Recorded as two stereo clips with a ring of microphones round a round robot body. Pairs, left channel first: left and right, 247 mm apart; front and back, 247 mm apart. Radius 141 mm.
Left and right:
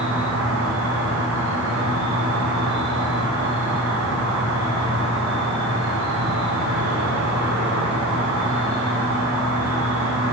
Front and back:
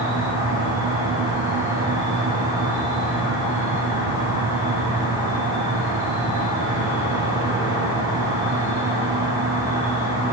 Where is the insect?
60° right, 9 m.